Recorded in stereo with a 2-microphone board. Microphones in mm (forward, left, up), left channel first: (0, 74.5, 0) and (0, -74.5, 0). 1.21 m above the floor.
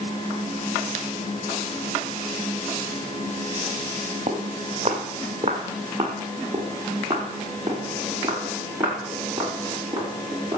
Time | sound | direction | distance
4.3 | footsteps | 45° right (ahead or behind) | 1.9 m